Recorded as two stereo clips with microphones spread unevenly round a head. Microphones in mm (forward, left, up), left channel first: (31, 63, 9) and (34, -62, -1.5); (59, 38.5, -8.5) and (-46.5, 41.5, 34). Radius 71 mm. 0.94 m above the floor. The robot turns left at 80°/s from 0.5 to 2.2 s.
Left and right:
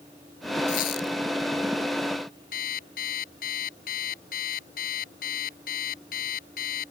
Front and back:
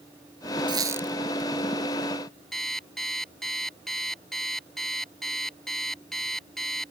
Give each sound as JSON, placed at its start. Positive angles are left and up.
{"t": 0.7, "sound": "a squeak", "azimuth_deg": 135}
{"t": 2.5, "sound": "an alarm clock", "azimuth_deg": 90}